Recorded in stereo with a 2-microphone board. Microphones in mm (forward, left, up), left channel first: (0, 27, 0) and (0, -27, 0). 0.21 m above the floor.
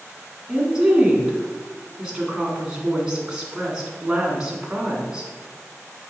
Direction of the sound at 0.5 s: 15° right (ahead or behind).